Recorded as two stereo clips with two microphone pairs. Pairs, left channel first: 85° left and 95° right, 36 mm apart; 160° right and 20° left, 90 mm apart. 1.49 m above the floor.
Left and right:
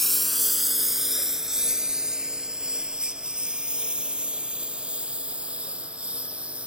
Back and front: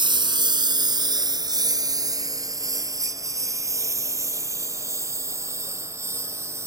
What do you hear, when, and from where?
0.0 s a lawn mower: 5° left; by 6.7 s 35° right